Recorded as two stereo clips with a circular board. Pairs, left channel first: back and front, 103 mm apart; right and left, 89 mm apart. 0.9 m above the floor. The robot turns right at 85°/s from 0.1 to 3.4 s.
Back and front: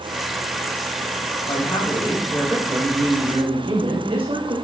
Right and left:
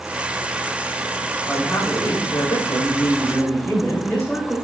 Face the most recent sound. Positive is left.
turn(degrees=-20)